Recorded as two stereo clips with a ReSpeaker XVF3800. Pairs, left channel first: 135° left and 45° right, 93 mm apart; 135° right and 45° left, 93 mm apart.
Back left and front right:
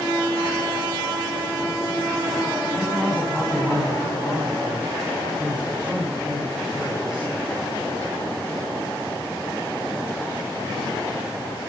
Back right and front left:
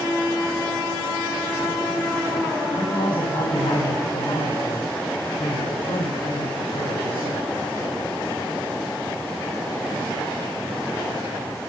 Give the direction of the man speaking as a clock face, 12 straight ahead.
4 o'clock.